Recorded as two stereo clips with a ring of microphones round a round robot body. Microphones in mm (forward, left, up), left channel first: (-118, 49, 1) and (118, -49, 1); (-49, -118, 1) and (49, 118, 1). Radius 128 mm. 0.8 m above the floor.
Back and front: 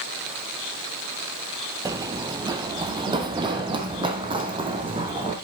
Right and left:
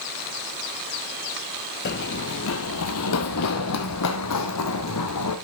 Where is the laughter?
No laughter in this recording.